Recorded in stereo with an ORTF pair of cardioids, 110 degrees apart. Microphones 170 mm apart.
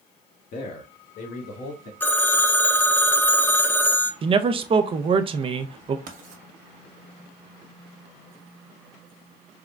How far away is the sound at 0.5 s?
About 0.9 m.